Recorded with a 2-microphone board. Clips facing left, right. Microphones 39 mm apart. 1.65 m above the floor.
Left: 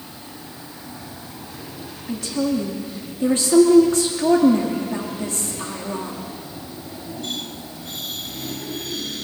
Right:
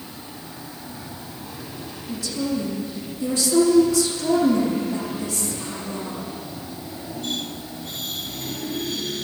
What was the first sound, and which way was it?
A woman speaking, 55° left (ahead or behind).